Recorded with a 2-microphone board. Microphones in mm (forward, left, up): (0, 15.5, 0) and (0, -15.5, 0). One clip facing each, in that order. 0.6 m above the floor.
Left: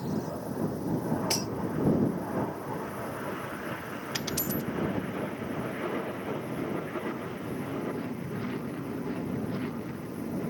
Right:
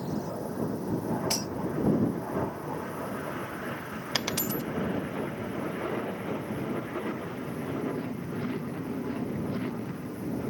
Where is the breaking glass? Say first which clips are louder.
Left 1 dB; 10° left (ahead or behind).